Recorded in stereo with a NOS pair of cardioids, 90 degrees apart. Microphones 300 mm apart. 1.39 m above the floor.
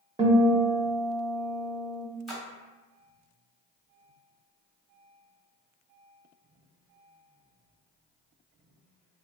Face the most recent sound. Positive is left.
turn(degrees=0)